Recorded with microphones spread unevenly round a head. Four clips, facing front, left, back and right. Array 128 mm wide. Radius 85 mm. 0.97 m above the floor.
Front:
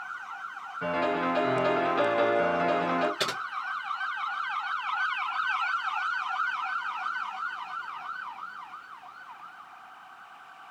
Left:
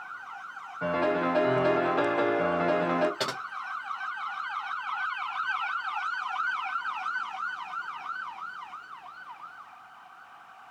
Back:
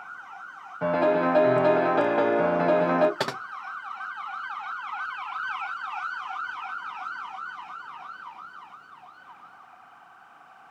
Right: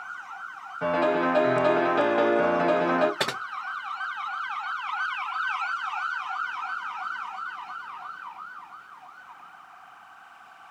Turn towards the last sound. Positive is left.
turn(degrees=180)